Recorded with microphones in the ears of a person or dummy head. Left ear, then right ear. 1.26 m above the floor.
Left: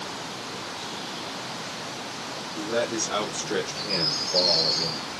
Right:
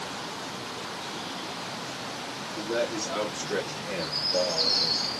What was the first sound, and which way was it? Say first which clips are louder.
A man speaking: left 2 dB; 60° left (ahead or behind).